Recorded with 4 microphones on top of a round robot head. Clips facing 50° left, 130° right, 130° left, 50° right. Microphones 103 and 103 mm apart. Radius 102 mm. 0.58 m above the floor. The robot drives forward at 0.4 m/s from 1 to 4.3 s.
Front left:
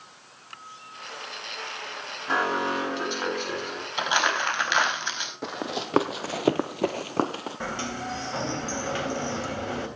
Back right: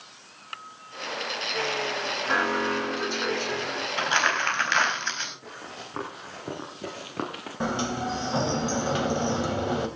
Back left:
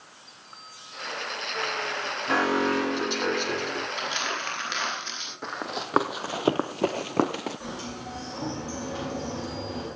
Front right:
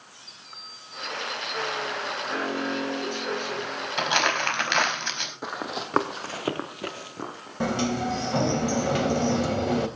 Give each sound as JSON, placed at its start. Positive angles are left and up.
{"t": 2.3, "sound": "an alarm", "azimuth_deg": 120, "distance_m": 9.0}
{"t": 4.0, "sound": "crumpling", "azimuth_deg": -25, "distance_m": 4.5}
{"t": 5.4, "sound": "running footsteps", "azimuth_deg": 35, "distance_m": 2.0}
{"t": 7.6, "sound": "a sliding door", "azimuth_deg": -60, "distance_m": 3.0}